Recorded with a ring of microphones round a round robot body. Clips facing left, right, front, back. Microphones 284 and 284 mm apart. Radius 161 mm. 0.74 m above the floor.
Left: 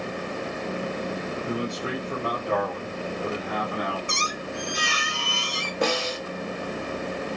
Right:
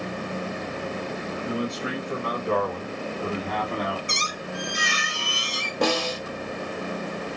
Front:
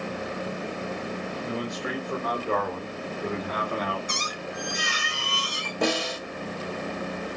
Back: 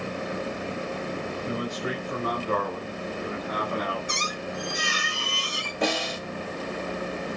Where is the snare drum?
40° right, 2.5 m.